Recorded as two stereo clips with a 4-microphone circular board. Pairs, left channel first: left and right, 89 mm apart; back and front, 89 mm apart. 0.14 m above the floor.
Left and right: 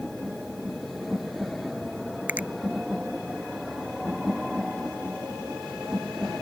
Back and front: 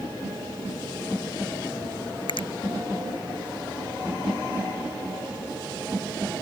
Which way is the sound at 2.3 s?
165° right.